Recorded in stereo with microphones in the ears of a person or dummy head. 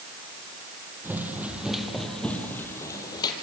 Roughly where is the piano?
No piano in this recording.